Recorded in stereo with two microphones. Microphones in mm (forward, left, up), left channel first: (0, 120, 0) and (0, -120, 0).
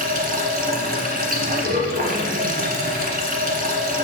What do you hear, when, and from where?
0.0 s running water: 40° right (ahead or behind), 1.3 m